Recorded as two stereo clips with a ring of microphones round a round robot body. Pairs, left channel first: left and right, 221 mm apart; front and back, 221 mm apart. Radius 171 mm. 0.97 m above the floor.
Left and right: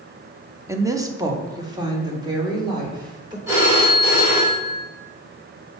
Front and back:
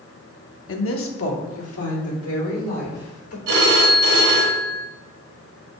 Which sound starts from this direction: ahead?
A woman speaking, at 0.7 s.